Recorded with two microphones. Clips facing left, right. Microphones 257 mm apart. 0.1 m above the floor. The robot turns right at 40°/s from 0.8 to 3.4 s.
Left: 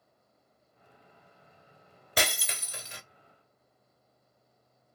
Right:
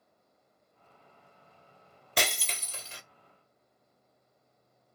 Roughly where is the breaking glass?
Ahead.